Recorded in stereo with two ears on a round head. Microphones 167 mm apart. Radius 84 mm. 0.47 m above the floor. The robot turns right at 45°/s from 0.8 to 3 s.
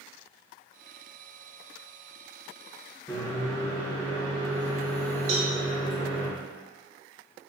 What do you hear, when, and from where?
3.1 s a microwave: 20° left (ahead or behind), 1.1 m
5.3 s a cowbell: 35° right (ahead or behind), 1.0 m